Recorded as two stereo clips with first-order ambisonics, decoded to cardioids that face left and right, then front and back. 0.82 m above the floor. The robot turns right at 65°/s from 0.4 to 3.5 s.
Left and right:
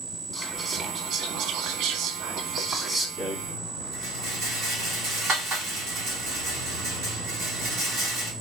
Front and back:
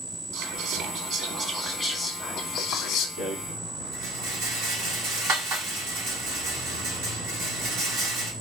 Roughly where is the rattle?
Behind.